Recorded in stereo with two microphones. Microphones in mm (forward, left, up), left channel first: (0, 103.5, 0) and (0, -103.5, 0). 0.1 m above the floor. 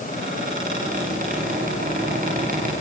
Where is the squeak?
40° right (ahead or behind), 8 m.